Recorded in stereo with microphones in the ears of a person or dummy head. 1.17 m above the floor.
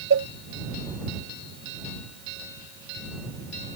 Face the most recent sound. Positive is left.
turn(degrees=-75)  # may be behind; listen again after turning